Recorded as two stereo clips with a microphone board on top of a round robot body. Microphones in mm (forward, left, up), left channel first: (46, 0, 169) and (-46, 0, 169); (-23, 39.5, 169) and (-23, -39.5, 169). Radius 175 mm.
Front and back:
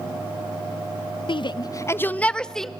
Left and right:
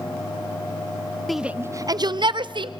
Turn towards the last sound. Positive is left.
turn(degrees=-85)